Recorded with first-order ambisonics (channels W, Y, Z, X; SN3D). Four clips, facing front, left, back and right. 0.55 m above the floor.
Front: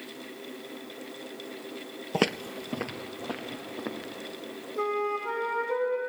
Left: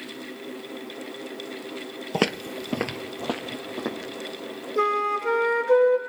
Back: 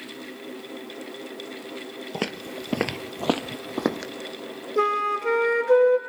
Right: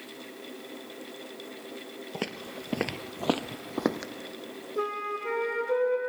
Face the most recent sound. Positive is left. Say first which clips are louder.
# left 8 dB, back 6 dB
turn(degrees=150)